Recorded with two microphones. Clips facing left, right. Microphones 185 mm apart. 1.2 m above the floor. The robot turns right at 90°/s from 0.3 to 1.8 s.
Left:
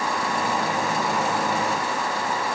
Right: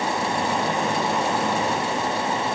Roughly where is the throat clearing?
I don't hear throat clearing.